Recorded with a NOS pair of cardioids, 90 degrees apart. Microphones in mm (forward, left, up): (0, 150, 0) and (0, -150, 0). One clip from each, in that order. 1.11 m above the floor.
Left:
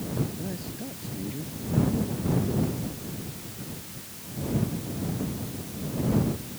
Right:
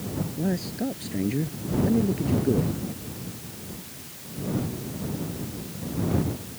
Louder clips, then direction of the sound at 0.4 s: Right 7 dB; 65° right.